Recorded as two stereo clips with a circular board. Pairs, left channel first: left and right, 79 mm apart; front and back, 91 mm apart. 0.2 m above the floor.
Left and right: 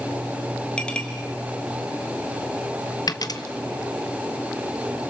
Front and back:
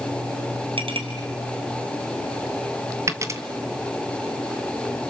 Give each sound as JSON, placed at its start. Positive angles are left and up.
{"t": 0.8, "sound": "a clink", "azimuth_deg": 170, "distance_m": 3.0}
{"t": 3.1, "sound": "a dropped coin", "azimuth_deg": 125, "distance_m": 1.1}